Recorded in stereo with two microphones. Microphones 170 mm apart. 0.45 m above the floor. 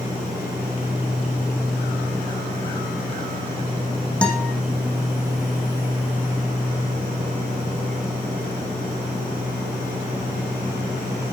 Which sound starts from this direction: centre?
A guitar, at 4.2 s.